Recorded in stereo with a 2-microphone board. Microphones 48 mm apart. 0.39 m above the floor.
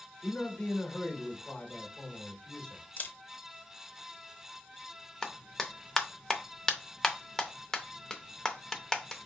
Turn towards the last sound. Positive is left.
turn(degrees=15)  # may be behind; listen again after turning